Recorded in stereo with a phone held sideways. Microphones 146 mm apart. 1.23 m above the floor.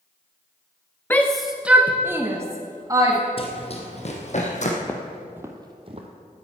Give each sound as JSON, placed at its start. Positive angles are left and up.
{"t": 1.1, "sound": "a shout", "side_deg": 15, "distance_m": 0.5}
{"t": 3.4, "sound": "running footsteps", "side_deg": 40, "distance_m": 1.7}
{"t": 4.8, "sound": "footsteps", "side_deg": 15, "distance_m": 1.4}